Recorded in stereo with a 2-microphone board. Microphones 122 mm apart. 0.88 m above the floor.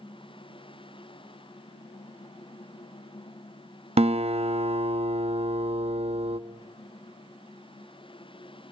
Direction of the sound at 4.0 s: 55° right (ahead or behind).